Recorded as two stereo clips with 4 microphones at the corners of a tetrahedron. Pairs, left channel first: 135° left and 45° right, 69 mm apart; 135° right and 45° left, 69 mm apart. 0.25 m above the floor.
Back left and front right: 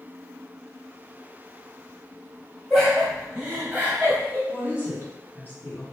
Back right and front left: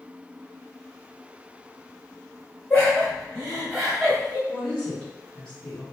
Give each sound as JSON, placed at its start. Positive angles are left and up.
{"t": 2.7, "sound": "laughter", "azimuth_deg": -140, "distance_m": 1.5}
{"t": 4.5, "sound": "a woman speaking", "azimuth_deg": 155, "distance_m": 1.8}